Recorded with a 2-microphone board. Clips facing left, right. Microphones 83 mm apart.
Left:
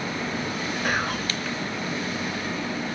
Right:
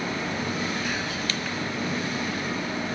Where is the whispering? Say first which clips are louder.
Left 4 dB; 55° left (ahead or behind), 2.0 m.